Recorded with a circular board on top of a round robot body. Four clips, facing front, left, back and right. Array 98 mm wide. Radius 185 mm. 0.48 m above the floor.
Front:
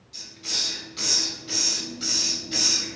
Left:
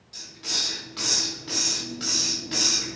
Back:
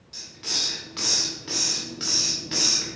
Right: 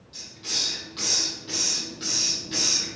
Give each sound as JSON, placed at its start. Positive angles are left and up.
{"t": 0.1, "sound": "a hiss", "azimuth_deg": 160, "distance_m": 0.7}